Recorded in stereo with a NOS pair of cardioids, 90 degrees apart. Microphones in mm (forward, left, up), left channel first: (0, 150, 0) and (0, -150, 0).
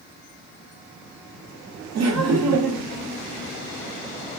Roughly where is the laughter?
Ahead right.